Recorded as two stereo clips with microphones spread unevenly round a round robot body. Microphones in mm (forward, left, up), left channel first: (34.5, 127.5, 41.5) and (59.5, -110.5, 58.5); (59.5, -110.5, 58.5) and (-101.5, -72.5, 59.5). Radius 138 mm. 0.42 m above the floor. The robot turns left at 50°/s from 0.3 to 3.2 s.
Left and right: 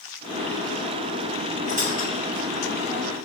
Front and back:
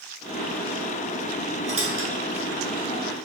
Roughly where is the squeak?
Behind right.